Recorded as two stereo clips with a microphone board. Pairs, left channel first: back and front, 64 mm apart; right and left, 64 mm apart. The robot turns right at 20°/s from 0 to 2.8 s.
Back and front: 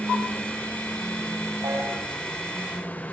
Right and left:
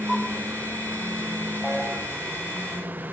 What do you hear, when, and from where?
1.6 s a piano: 5° right, 10 m; by 1.9 s straight ahead, 10 m